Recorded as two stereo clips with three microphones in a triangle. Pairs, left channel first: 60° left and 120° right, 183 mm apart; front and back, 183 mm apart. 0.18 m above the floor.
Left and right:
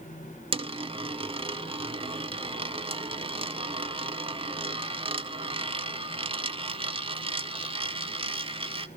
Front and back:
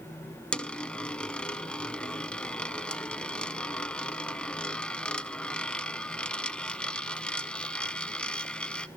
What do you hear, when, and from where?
0.5 s a dropped coin: 80° right, 0.5 m